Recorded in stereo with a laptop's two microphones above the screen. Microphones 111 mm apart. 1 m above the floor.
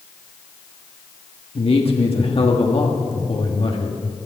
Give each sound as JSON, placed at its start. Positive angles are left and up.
{"t": 1.6, "sound": "a man speaking", "side_deg": 55, "distance_m": 1.3}